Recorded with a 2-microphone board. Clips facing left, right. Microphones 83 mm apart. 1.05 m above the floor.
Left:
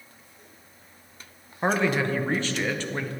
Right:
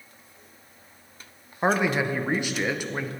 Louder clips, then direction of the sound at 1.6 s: Right 1 dB; 15° right (ahead or behind).